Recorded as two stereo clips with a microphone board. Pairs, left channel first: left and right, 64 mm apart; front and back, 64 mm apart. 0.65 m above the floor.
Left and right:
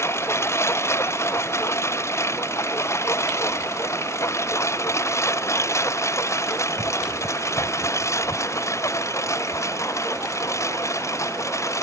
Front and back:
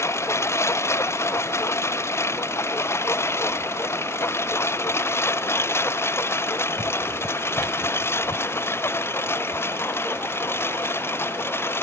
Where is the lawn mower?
45° left; by 11.8 s 50° left.